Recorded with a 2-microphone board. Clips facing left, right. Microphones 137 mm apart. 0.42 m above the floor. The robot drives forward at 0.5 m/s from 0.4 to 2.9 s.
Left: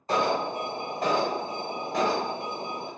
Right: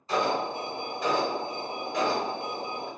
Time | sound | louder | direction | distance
0.1 | an alarm | left 1 dB | 55° left (ahead or behind) | 1.3 m